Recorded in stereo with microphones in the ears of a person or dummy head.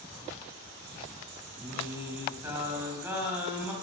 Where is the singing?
15° right (ahead or behind), 3 m.